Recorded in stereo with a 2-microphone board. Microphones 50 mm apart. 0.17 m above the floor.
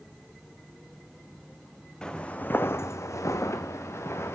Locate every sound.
2.0 s footsteps: 15° left (ahead or behind), 0.7 m; by 4.3 s 60° left (ahead or behind), 1.2 m